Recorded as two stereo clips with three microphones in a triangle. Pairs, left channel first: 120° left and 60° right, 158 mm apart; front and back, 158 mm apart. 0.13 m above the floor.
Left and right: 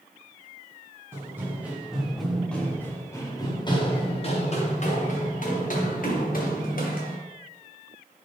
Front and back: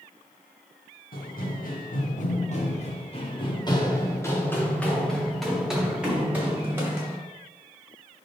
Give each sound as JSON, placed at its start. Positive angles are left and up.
{"t": 1.1, "sound": "running footsteps", "azimuth_deg": 15, "distance_m": 1.8}